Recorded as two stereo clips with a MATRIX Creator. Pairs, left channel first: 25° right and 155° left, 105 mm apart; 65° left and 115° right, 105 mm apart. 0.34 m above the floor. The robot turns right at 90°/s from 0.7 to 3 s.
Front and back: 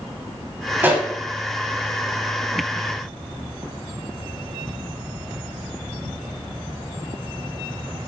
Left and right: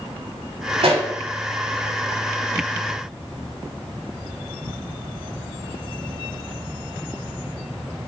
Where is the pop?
135° right, 1.0 m; by 1.1 s 110° right, 1.0 m.